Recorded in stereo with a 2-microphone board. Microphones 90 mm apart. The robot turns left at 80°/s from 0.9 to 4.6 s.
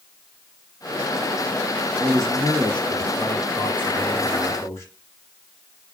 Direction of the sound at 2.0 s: 75° right.